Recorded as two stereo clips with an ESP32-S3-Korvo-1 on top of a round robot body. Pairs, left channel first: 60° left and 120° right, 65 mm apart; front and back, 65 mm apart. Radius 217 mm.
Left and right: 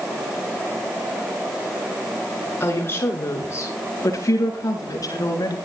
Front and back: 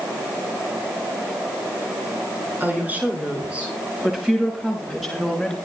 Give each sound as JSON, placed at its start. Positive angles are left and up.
{"t": 2.6, "sound": "a woman speaking", "azimuth_deg": 115, "distance_m": 8.5}